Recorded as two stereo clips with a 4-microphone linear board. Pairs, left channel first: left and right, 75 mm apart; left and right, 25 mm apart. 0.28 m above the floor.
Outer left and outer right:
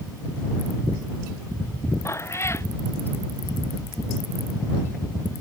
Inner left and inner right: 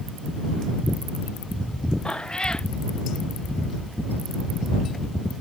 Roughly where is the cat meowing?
Left.